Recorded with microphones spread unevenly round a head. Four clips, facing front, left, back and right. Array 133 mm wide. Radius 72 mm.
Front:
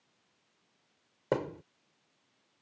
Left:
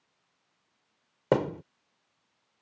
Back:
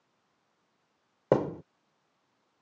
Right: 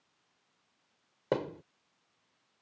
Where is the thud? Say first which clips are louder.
Left 7 dB, back 6 dB; 155° left.